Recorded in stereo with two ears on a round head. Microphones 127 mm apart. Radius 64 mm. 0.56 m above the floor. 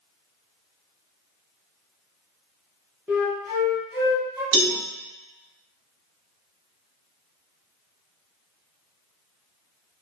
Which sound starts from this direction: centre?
A flute, at 3.1 s.